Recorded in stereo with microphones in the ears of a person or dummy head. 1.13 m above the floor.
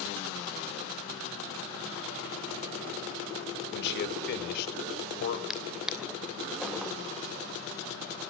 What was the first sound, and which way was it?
A man speaking, 65° left (ahead or behind).